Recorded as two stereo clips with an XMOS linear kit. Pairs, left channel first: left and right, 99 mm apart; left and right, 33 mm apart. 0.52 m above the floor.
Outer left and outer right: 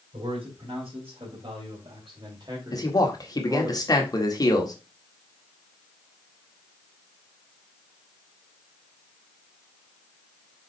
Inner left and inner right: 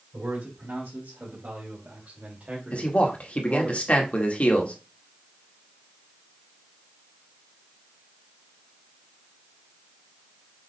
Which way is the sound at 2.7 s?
40° left (ahead or behind).